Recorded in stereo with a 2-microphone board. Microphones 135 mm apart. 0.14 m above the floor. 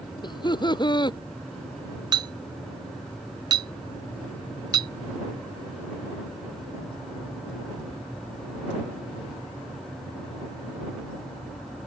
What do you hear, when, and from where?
0.2 s laughter: 35° left (ahead or behind)
2.1 s a clink: 35° right (ahead or behind)